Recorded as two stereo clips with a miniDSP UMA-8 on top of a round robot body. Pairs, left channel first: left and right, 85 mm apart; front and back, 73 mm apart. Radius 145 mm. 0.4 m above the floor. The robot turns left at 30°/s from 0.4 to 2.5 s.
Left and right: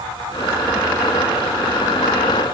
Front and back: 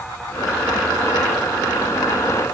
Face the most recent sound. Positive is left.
No sound to turn to.